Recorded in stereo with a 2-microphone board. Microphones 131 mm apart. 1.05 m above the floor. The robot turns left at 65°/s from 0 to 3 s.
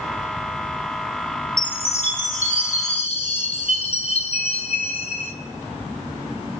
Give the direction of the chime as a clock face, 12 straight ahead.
7 o'clock.